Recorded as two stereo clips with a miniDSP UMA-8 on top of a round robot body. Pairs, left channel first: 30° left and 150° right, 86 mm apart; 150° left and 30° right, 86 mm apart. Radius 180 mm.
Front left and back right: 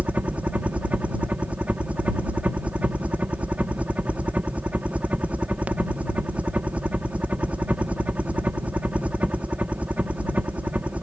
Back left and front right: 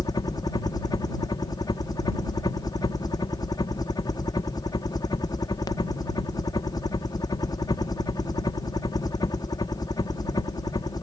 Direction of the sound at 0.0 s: 140° left.